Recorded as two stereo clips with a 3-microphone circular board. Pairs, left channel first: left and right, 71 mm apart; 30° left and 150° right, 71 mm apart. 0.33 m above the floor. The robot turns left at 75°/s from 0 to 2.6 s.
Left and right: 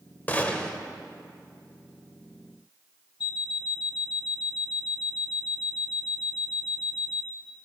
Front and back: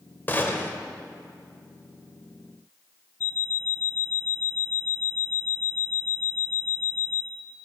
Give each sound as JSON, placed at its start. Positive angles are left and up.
{"t": 0.3, "sound": "a gunshot", "azimuth_deg": 55, "distance_m": 1.0}
{"t": 3.2, "sound": "an alarm clock", "azimuth_deg": 85, "distance_m": 0.6}